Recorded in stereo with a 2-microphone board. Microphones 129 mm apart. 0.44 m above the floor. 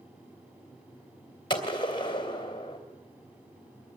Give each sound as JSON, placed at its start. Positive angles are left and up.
{"t": 1.5, "sound": "a gunshot", "side_deg": 35, "distance_m": 2.5}